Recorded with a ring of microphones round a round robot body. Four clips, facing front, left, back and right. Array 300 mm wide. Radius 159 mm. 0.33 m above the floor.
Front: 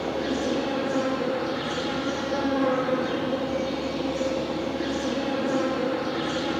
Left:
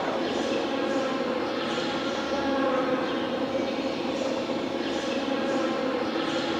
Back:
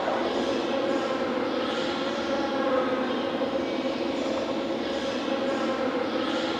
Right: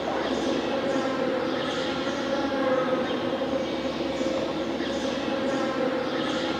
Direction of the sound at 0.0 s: 15° right.